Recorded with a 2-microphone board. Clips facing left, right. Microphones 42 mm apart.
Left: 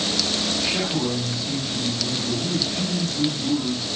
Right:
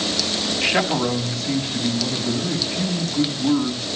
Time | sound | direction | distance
0.6 | a man speaking | 55° right (ahead or behind) | 5 m